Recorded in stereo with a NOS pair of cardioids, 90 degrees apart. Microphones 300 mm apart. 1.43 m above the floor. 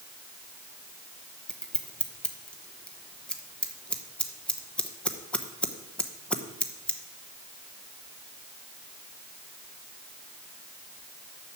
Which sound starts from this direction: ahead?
Scissors, at 1.5 s.